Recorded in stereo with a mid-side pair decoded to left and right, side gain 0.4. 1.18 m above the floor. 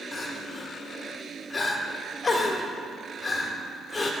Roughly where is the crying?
Ahead left.